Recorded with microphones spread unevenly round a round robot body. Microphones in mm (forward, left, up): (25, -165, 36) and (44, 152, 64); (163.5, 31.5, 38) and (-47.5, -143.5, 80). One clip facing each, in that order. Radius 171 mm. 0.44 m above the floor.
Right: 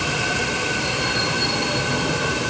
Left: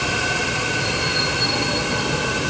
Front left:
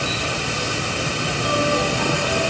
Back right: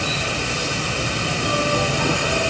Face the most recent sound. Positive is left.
No sound to turn to.